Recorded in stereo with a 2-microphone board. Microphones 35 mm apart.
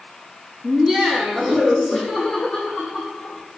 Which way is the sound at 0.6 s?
10° right (ahead or behind).